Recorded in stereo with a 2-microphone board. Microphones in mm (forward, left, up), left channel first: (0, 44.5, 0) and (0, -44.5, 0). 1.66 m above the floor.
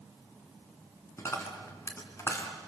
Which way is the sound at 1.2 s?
30° left (ahead or behind).